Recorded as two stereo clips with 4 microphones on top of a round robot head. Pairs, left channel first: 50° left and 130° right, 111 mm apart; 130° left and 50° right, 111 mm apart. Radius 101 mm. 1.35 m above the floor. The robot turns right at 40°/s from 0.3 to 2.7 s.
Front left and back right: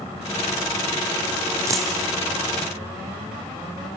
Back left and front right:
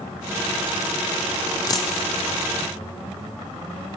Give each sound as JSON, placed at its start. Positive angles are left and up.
{"t": 1.7, "sound": "a dropped coin", "azimuth_deg": 175, "distance_m": 1.1}